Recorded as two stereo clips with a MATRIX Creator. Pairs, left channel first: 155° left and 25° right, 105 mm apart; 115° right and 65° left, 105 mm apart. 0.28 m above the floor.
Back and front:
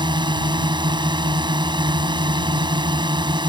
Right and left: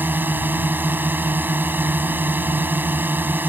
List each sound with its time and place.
0.0 s a drone: straight ahead